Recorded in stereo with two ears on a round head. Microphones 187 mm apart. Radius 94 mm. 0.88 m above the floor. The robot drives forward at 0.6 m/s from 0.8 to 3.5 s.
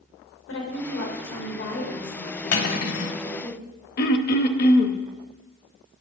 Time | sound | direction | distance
0.5 | a woman speaking | 70° left (ahead or behind) | 3.5 m
2.5 | cutlery clinking | 60° left (ahead or behind) | 2 m
4.0 | throat clearing | 50° left (ahead or behind) | 0.8 m